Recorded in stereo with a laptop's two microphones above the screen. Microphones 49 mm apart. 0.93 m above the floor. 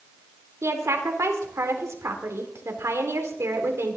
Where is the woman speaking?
75° right (ahead or behind), 2.5 m.